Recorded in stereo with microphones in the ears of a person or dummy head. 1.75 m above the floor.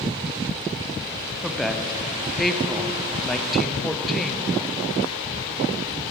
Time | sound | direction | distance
1.4 | a woman speaking | centre (ahead or behind) | 0.7 m